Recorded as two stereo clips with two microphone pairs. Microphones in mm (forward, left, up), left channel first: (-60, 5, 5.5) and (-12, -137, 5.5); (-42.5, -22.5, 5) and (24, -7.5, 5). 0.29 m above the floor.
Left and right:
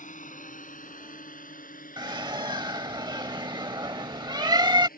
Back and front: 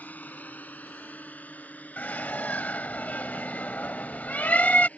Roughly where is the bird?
Behind right.